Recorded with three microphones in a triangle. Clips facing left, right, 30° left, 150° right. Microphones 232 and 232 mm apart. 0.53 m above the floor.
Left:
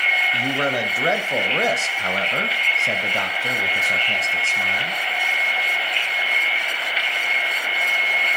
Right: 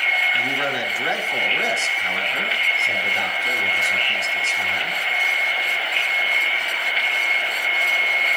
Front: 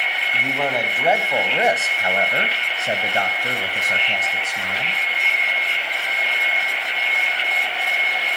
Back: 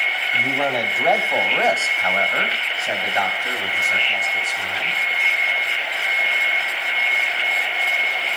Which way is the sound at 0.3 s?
125° left.